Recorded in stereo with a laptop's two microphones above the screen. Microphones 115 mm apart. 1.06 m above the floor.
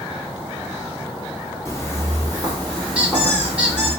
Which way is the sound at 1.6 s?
25° left (ahead or behind).